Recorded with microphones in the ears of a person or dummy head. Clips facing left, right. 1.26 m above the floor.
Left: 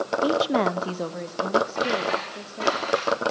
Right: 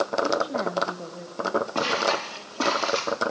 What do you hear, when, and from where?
0.2 s a woman speaking: 75° left (ahead or behind), 0.8 m; by 2.8 s 70° left (ahead or behind), 2.5 m
1.8 s footsteps: 80° right, 7.5 m; by 3.2 s 75° right (ahead or behind), 7 m